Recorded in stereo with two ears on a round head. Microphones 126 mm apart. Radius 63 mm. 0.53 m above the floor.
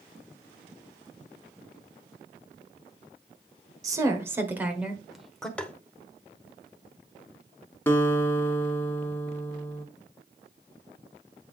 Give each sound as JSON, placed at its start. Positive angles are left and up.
{"t": 3.8, "sound": "a woman speaking", "side_deg": -25, "distance_m": 1.6}
{"t": 5.6, "sound": "tapping", "side_deg": 10, "distance_m": 0.7}
{"t": 7.9, "sound": "a guitar", "side_deg": 15, "distance_m": 1.0}